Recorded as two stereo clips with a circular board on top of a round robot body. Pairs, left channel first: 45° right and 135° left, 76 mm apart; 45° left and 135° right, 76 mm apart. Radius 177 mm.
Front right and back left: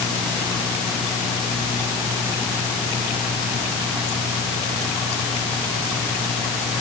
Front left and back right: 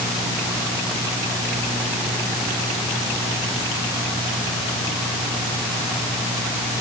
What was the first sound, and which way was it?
Only background noise.